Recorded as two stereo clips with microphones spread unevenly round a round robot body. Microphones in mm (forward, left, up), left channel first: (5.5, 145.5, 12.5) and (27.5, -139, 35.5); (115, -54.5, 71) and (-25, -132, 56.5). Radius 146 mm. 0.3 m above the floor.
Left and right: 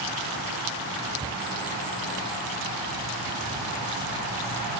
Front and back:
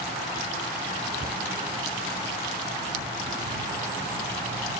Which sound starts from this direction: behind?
A cupboard door, at 1.2 s.